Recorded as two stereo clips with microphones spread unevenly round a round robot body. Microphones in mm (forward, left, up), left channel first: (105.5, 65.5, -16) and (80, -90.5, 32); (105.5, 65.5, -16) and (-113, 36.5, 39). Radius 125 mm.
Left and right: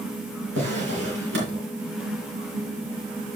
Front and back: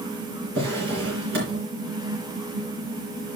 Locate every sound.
0.6 s a drawer: 125° right, 4 m